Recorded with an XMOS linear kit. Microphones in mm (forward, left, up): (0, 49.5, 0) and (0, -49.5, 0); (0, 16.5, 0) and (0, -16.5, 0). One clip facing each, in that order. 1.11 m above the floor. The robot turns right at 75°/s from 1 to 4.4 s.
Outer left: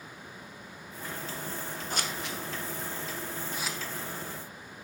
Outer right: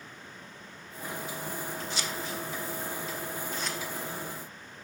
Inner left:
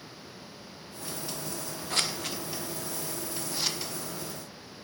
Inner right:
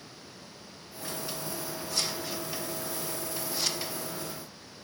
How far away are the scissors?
About 0.5 m.